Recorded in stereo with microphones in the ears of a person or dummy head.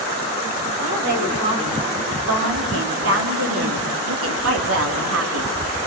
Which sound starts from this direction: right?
A woman speaking, at 0.8 s.